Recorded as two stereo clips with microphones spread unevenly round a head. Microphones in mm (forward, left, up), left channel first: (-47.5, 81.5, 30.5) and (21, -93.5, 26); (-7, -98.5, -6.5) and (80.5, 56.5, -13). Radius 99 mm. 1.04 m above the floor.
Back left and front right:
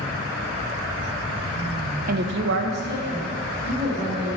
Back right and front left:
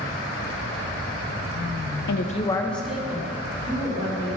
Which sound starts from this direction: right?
A woman speaking, at 2.1 s.